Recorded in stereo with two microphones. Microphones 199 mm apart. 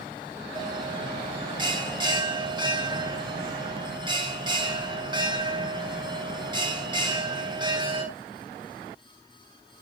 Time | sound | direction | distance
0.6 | a bell | 25° right (ahead or behind) | 3 m